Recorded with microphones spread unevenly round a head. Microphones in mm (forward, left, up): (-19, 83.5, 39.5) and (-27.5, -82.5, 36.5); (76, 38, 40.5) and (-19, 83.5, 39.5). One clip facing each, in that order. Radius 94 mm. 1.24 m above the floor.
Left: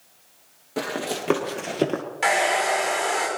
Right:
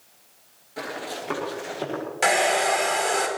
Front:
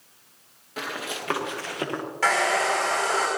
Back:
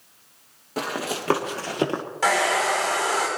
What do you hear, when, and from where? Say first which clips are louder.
0.8 s running footsteps: left 5 dB, back 5 dB; 105° left, 2.5 m; by 2.0 s 100° left, 2.0 m
2.2 s a hair dryer: right 1 dB, back 1 dB; 130° right, 4.5 m